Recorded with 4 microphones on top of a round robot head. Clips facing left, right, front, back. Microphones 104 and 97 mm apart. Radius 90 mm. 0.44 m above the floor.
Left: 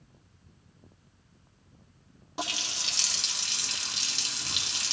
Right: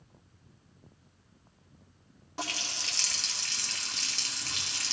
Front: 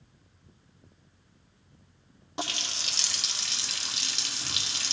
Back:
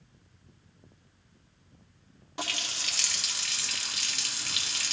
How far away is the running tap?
About 0.6 m.